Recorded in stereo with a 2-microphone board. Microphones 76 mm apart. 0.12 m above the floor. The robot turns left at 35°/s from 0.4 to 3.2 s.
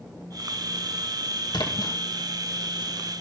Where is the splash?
65° left (ahead or behind), 2.5 m; by 2.0 s 55° left (ahead or behind), 2.5 m.